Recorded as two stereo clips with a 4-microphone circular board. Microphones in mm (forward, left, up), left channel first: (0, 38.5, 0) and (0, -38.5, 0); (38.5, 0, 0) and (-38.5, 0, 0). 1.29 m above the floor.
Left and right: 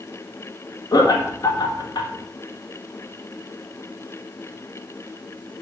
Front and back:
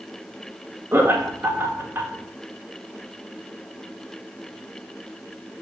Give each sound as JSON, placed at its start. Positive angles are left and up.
{"t": 0.9, "sound": "laughter", "azimuth_deg": 120, "distance_m": 1.4}